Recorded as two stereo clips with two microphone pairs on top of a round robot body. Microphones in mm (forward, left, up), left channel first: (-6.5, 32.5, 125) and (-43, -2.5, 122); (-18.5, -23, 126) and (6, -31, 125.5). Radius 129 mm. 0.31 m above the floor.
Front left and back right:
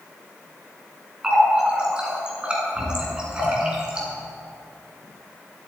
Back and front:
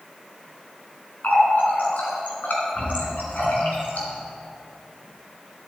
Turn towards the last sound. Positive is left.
turn(degrees=155)